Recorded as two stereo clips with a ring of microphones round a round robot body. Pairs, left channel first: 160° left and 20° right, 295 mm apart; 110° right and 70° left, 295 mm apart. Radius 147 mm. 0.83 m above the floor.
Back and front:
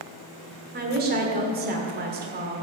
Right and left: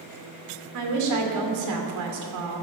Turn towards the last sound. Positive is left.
turn(degrees=35)